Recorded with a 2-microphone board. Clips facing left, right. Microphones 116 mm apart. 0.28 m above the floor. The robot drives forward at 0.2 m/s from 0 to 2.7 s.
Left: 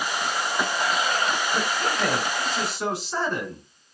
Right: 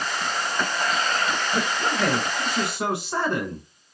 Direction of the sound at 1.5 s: 55° right (ahead or behind).